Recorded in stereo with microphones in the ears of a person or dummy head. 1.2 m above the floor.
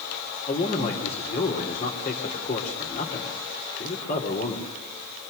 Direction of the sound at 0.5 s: 45° left (ahead or behind).